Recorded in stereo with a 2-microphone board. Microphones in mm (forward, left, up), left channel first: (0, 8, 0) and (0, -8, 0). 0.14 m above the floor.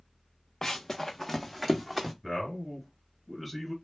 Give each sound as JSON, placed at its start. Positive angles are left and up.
{"t": 0.6, "sound": "running footsteps", "side_deg": 35, "distance_m": 0.5}
{"t": 2.2, "sound": "a man speaking", "side_deg": -5, "distance_m": 1.8}